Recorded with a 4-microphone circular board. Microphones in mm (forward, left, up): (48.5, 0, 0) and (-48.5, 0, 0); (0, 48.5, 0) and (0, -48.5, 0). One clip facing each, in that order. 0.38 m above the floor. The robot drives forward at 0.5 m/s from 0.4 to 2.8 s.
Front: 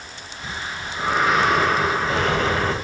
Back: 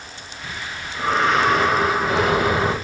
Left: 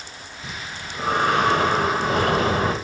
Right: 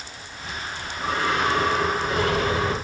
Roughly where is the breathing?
Left.